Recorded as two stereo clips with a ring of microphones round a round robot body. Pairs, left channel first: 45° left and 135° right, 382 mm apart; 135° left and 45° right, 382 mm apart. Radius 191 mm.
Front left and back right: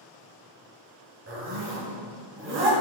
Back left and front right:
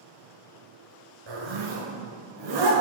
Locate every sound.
1.3 s a zipper: 75° right, 3.5 m